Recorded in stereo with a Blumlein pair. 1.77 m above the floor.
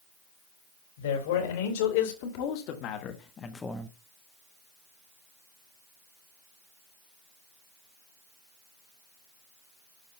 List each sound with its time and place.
1.0 s a man speaking: 60° left, 4 m; by 3.9 s straight ahead, 1.1 m